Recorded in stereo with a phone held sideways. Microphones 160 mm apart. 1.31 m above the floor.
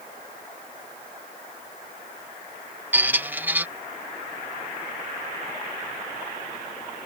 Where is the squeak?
10° right (ahead or behind).